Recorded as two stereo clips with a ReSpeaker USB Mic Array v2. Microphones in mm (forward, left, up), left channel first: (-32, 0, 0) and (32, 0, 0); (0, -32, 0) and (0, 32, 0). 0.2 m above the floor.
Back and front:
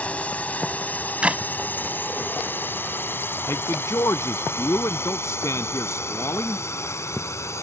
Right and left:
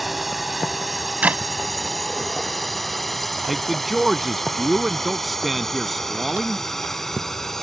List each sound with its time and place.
0.0 s a drone: straight behind; by 7.6 s 170° right
1.2 s a clap: 50° left
3.5 s a man speaking: straight behind